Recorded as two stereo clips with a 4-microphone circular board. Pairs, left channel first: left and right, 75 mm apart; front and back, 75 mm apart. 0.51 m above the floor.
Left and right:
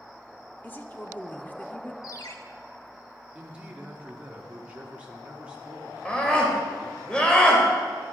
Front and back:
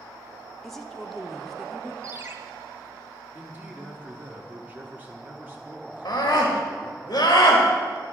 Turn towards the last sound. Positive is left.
turn(degrees=15)